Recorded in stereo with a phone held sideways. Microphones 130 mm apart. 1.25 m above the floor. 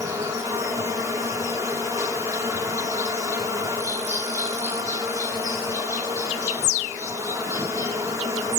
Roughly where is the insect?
Right.